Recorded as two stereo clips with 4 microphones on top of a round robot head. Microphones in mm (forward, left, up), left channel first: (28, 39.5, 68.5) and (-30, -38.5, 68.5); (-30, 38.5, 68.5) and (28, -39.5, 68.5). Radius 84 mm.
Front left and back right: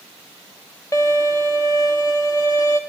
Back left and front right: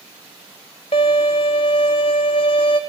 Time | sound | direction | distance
0.9 | a violin | 105° left | 0.7 m